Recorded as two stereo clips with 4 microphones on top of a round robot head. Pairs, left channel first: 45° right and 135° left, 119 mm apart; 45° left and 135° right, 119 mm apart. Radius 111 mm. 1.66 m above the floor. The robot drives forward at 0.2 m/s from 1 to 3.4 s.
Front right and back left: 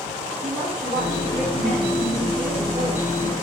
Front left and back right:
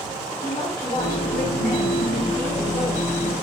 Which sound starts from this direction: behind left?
A woman speaking, at 0.4 s.